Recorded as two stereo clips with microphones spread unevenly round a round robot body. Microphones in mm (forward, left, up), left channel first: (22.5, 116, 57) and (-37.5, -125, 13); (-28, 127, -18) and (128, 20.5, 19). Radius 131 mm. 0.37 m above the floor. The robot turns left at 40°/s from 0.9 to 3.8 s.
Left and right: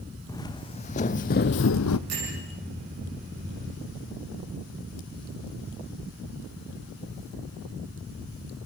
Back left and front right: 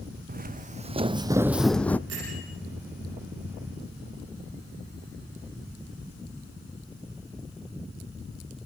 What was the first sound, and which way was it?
Footsteps, straight ahead.